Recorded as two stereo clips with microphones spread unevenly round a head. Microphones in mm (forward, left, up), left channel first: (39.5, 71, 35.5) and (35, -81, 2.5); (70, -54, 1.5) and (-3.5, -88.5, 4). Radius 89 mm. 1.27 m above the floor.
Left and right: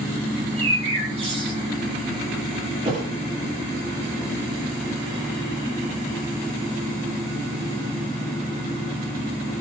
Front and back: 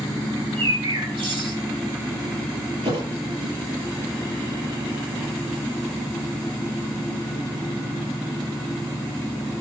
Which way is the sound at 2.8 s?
155° right.